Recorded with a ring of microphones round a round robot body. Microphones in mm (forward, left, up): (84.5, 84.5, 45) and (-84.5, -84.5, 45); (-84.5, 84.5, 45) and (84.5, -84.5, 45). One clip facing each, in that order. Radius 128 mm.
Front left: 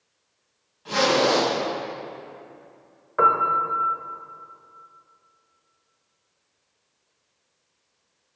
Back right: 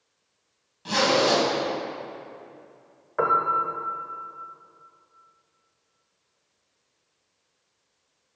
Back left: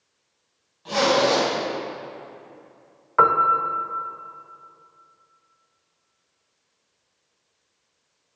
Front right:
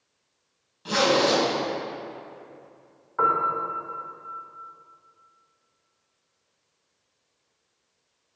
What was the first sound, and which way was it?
A zipper, 95° right.